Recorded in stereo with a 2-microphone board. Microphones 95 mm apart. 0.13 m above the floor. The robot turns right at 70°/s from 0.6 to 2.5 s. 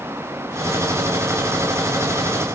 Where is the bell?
I don't hear a bell.